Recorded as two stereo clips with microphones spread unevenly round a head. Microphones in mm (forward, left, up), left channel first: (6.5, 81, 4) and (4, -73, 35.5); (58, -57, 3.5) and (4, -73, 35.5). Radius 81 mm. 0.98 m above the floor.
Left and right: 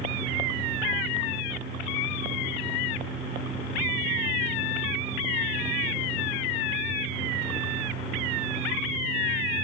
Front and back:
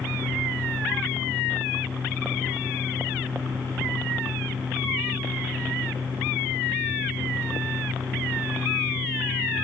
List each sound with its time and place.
0.0 s a fan: 105° right, 1.9 m